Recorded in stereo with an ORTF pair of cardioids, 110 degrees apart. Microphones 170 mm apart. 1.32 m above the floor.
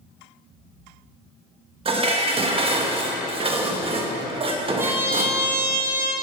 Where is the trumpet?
15° right, 2 m.